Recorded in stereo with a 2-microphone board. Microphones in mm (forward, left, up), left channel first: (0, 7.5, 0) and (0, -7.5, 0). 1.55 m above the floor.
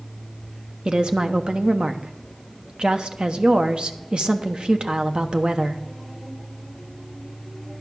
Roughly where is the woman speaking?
Right.